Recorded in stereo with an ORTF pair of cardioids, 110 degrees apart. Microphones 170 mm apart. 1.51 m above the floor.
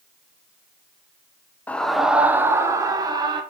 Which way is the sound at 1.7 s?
10° left.